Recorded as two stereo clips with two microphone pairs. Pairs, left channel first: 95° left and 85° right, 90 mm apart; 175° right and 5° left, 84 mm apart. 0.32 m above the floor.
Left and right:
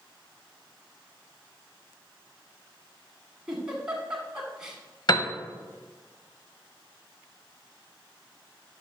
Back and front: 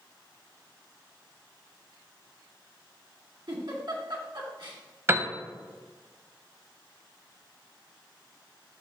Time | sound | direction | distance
3.5 | a giggle | 5° right | 1.9 m
5.1 | a piano | 65° left | 0.6 m